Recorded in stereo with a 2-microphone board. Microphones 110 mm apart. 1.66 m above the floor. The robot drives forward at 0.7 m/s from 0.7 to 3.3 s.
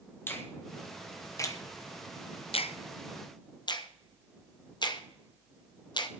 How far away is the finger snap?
About 1.5 m.